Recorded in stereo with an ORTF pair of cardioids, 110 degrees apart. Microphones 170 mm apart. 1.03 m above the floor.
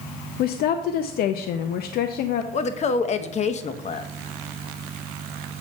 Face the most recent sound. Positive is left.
turn(degrees=40)